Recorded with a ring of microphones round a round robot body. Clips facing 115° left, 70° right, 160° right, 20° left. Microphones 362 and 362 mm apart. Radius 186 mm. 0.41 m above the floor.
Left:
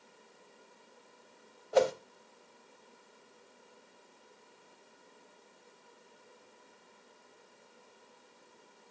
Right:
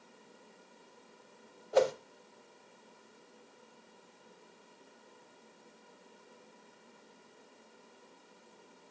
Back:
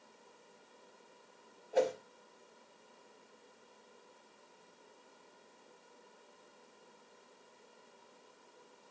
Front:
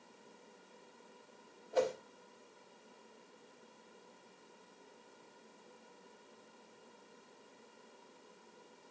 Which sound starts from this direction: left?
A whoosh, at 1.7 s.